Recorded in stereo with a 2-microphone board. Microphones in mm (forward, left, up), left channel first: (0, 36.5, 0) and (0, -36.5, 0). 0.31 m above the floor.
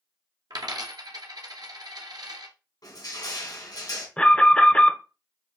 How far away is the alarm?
About 0.8 m.